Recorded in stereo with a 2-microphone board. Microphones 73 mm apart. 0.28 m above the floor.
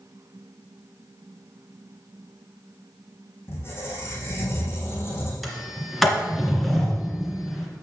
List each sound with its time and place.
3.5 s a squeak: 35° left (ahead or behind), 3 m
5.4 s a sliding door: centre (ahead or behind), 2 m